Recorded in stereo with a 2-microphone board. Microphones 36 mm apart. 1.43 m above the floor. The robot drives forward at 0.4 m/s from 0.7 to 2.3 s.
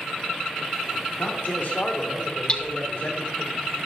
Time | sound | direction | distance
1.2 | a man speaking | 75° left (ahead or behind) | 3.5 m
2.5 | hammering | 35° left (ahead or behind) | 0.8 m